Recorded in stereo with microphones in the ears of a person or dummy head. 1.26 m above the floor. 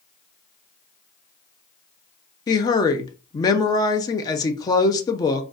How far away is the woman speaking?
About 0.5 m.